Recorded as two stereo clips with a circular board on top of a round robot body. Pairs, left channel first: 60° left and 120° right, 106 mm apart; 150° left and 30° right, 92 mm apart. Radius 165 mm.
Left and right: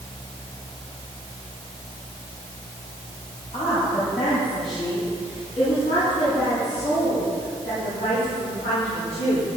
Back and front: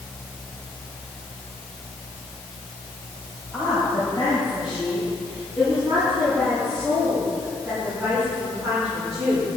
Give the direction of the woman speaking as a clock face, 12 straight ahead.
11 o'clock.